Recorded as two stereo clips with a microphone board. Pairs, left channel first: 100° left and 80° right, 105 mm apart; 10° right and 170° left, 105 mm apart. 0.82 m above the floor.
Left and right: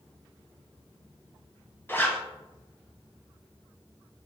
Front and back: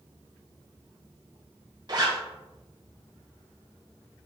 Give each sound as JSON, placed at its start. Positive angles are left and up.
{"t": 1.9, "sound": "a zipper", "azimuth_deg": 160, "distance_m": 0.8}